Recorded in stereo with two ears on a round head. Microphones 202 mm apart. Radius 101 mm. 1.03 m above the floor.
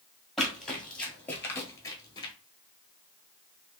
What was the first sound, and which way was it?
Running footsteps, centre (ahead or behind).